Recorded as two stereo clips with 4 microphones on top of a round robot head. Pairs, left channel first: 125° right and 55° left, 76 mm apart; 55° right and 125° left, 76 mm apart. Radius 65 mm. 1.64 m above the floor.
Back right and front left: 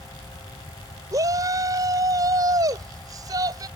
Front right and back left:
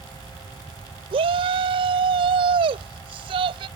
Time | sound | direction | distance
1.1 | a shout | 105° left | ?